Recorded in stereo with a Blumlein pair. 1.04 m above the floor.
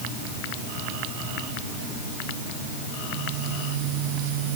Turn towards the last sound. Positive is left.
No sound to turn to.